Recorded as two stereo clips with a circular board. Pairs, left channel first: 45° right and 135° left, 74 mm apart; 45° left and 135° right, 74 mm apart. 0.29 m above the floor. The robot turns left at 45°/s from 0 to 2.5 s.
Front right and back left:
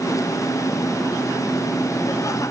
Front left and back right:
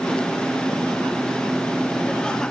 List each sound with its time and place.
Only background noise.